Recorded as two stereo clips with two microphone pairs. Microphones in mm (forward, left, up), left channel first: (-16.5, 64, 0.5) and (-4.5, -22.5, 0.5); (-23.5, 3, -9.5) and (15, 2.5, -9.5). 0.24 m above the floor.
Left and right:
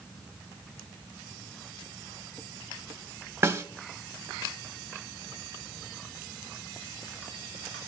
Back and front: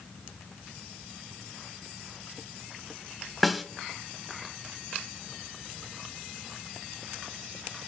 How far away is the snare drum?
About 0.7 m.